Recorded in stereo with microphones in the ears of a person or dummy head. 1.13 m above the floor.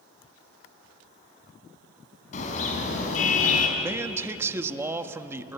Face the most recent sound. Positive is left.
turn(degrees=-15)  # may be behind; listen again after turning